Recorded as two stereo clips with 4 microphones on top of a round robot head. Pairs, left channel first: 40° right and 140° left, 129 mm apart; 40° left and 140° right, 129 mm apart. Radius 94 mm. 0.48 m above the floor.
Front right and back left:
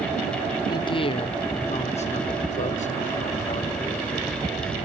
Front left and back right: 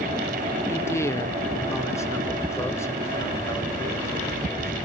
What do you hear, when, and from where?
0.7 s a man speaking: 15° right, 0.8 m; by 4.9 s 30° right, 3 m